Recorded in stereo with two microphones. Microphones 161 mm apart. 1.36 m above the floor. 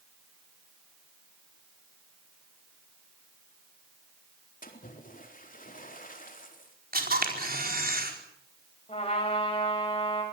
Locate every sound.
4.6 s a splash: 60° left (ahead or behind), 4 m
6.9 s a camera shutter: 70° right (ahead or behind), 4.5 m
8.9 s a trumpet: 35° left (ahead or behind), 8 m